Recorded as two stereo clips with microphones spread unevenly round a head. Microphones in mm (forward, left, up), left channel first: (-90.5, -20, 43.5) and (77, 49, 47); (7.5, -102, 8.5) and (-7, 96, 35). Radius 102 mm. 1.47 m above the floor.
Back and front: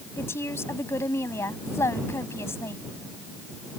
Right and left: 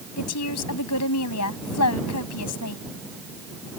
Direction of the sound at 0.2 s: 80° right.